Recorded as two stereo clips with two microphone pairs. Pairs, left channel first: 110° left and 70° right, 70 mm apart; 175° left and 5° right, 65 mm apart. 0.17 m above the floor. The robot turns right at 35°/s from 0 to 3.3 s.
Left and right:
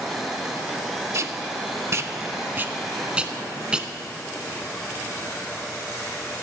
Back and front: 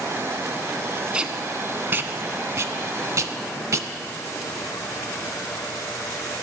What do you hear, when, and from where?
1.1 s tape being pulled: 80° right, 0.5 m; by 3.9 s 5° right, 0.5 m